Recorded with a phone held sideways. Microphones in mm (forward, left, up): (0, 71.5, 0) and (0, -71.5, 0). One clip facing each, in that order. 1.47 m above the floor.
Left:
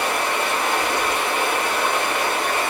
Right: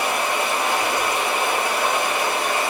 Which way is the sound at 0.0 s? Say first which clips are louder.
Even; 30° right (ahead or behind).